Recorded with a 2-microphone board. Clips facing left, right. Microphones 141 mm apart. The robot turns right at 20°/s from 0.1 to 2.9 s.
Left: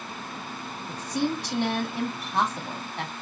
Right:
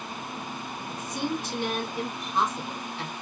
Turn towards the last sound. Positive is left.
turn(degrees=120)